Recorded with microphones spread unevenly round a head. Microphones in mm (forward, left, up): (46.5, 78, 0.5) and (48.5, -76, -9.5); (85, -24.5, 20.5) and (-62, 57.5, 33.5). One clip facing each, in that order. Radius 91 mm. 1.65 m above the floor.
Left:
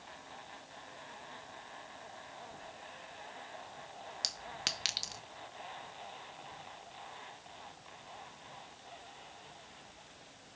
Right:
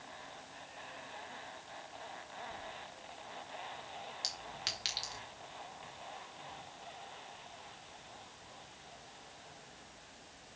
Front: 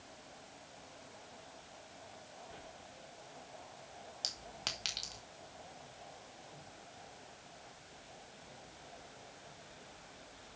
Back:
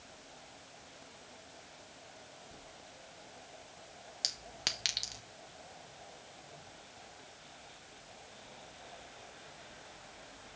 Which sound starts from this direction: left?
A clink, at 4.2 s.